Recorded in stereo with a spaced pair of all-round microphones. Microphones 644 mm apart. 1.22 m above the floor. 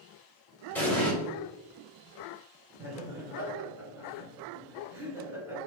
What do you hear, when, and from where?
0.8 s an explosion: 5° left (ahead or behind), 1.4 m
2.8 s laughter: 5° right (ahead or behind), 1.6 m